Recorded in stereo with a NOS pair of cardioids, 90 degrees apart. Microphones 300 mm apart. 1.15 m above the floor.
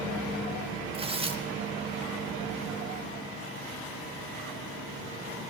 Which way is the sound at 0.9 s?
20° right.